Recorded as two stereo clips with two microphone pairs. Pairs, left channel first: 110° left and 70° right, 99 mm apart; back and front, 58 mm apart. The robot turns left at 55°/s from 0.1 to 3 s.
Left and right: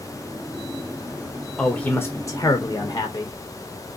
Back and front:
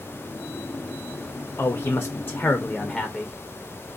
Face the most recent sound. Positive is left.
turn(degrees=105)